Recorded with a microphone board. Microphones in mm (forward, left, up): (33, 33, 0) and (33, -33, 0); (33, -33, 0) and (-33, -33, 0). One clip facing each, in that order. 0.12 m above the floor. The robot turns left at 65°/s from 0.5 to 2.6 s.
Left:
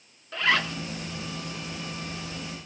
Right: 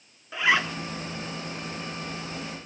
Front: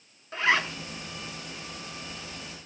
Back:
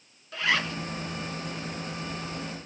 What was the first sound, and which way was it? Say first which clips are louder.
A zipper: right 1 dB, front 2 dB; 25° right.